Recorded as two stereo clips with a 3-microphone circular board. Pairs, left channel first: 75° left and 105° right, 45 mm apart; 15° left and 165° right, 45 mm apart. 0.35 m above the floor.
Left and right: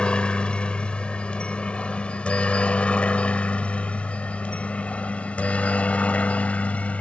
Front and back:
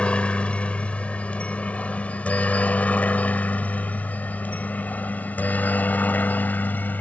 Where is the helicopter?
40° left; by 7.0 s 35° left.